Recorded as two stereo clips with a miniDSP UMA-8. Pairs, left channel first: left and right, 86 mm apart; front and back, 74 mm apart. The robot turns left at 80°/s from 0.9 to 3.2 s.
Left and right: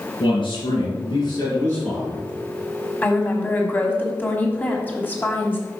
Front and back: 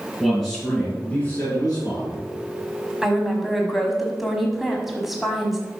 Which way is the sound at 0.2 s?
85° left.